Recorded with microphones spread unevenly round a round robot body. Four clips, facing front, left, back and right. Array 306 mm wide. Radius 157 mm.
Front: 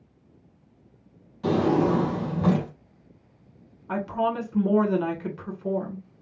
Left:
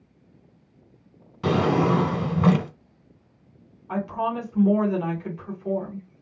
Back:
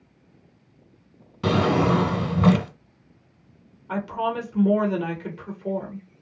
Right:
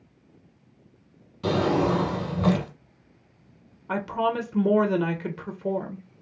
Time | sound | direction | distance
1.4 | a drawer | 160° left | 1.3 m
3.9 | a woman speaking | 70° right | 1.2 m